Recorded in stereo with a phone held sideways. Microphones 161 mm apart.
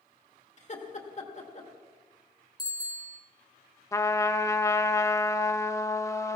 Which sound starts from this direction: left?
Laughter, at 0.6 s.